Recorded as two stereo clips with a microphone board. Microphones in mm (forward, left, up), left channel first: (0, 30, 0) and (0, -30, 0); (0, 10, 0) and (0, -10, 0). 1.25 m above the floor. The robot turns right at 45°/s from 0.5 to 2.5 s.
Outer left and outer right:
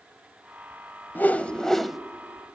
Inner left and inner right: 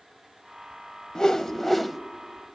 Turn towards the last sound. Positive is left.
turn(degrees=-150)